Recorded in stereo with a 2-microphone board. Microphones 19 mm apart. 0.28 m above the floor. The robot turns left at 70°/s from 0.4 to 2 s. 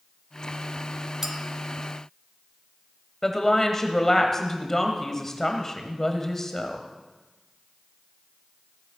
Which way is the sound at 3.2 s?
25° left (ahead or behind).